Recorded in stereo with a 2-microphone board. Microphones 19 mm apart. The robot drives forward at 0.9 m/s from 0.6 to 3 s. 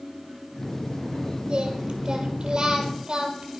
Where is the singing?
60° right (ahead or behind), 3.5 m; by 3.6 s 45° right (ahead or behind), 4.5 m.